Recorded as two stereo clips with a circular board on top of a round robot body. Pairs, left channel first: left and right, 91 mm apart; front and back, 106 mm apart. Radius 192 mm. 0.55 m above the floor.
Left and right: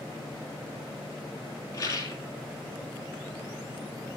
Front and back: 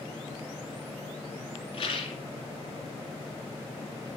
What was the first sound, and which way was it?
A rattle, 40° left.